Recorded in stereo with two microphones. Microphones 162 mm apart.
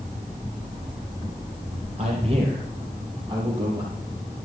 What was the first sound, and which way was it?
A man speaking, 40° right (ahead or behind).